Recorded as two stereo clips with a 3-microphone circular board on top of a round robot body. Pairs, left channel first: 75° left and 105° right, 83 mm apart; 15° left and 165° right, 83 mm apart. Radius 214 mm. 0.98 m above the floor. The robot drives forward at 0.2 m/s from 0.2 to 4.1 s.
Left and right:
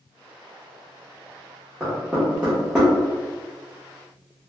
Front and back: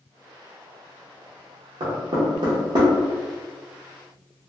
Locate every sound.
1.8 s knocking: 170° left, 0.5 m